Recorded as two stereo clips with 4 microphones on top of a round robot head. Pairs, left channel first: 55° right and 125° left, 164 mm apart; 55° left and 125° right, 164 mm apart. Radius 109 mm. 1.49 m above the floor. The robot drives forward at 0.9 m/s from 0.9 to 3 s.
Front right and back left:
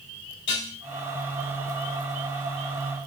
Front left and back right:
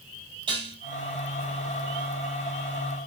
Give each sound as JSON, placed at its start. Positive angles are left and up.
{"t": 0.5, "sound": "dishes clattering", "azimuth_deg": -65, "distance_m": 6.0}